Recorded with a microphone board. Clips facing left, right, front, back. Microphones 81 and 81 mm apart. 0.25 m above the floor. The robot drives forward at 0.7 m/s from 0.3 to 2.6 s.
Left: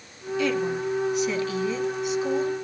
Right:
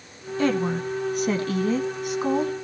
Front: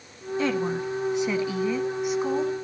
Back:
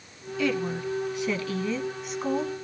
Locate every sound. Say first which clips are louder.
0.4 s a woman speaking: right 2 dB, front 1 dB; 50° right, 2.5 m; by 2.5 s 95° right, 2 m